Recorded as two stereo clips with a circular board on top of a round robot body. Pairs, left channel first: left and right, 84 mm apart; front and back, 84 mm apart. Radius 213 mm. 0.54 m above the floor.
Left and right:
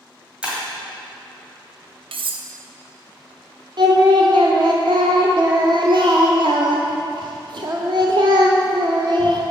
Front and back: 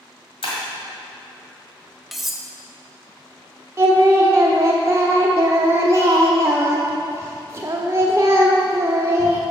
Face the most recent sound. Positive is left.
turn(degrees=-120)